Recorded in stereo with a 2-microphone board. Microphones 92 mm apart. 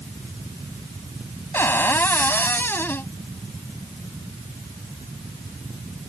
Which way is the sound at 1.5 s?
25° left (ahead or behind).